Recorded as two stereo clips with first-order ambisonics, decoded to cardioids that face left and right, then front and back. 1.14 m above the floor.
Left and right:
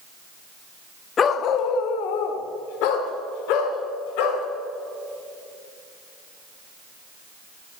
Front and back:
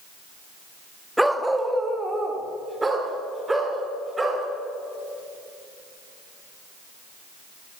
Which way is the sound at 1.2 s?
95° left.